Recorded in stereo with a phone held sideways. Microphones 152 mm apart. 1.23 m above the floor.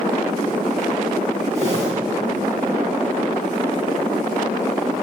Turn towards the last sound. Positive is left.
turn(degrees=-50)  # may be behind; listen again after turning